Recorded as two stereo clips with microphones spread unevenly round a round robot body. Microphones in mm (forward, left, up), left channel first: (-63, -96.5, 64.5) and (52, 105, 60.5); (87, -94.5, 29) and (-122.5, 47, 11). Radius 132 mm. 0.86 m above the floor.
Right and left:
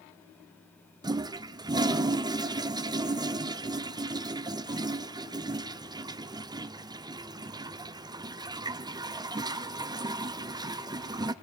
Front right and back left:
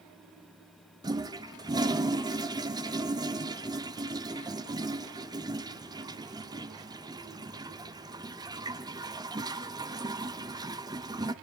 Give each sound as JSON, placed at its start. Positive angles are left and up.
{"t": 1.0, "sound": "a toilet flushing", "azimuth_deg": 105, "distance_m": 0.6}